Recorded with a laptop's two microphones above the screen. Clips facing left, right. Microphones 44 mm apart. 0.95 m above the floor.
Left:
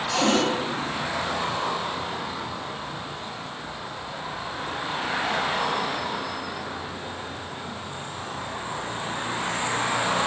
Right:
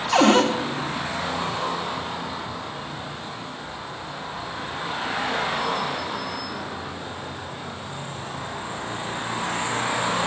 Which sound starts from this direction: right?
A cupboard door, at 0.1 s.